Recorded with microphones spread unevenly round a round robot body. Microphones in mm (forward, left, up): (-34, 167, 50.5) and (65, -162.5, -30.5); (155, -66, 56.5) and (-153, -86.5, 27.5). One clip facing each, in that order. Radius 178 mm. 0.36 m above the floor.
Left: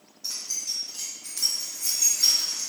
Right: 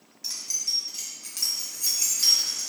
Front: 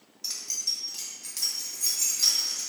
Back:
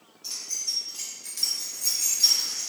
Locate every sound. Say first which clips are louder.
0.2 s keys jangling: left 1 dB, even; straight ahead, 1.7 m; by 2.7 s 5° right, 4 m